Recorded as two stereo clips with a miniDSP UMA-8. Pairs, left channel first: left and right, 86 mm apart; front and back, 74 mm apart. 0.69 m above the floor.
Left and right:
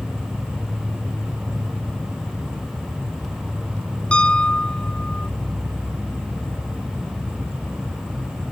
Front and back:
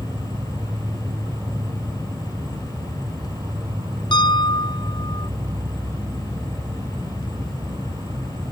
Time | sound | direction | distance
0.0 | an insect | 165° right | ?
4.1 | a piano | 15° left | ?